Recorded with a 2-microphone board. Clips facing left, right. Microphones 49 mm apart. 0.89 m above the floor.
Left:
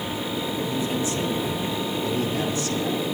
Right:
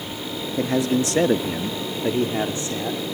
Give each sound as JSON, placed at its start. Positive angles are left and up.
{"t": 0.6, "sound": "a man speaking", "side_deg": -75, "distance_m": 1.4}